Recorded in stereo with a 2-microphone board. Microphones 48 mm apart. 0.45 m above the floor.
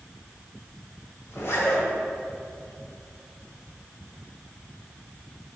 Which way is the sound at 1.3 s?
60° left (ahead or behind).